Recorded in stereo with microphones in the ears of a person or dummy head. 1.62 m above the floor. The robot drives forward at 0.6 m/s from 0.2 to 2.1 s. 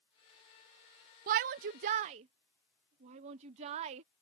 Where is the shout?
55° right (ahead or behind); by 4.0 s 40° right (ahead or behind).